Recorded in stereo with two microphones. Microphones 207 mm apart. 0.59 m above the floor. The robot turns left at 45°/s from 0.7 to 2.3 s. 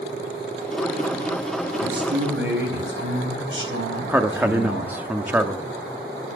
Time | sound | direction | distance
1.8 | a man speaking | 50° right (ahead or behind) | 4 m
4.1 | a man speaking | 10° right (ahead or behind) | 0.8 m